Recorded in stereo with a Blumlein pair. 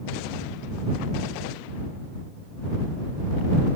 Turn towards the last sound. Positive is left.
No sound to turn to.